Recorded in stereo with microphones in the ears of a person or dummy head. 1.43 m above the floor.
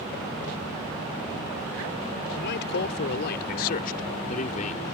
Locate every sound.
2.4 s a man speaking: 65° left (ahead or behind); by 4.8 s 35° left (ahead or behind)